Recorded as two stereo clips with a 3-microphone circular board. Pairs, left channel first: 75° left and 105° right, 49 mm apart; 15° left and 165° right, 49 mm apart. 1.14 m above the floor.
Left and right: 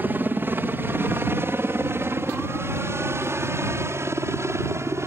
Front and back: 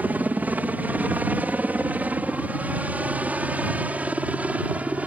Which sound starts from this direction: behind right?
A helicopter, at 0.0 s.